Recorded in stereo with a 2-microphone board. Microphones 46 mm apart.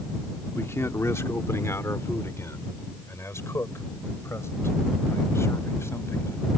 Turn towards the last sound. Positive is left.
turn(degrees=70)  # may be behind; listen again after turning